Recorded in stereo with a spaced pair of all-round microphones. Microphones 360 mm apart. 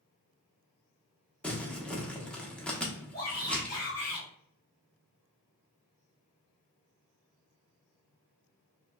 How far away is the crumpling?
About 0.9 m.